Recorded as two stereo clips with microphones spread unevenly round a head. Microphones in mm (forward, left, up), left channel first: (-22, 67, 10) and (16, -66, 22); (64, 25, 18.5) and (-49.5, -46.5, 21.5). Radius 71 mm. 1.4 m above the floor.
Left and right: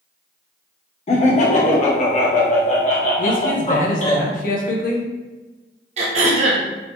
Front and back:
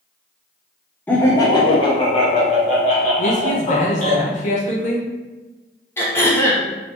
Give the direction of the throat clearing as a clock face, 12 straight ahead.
1 o'clock.